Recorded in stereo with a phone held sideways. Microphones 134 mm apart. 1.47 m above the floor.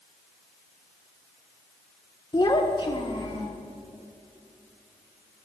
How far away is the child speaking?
About 0.6 m.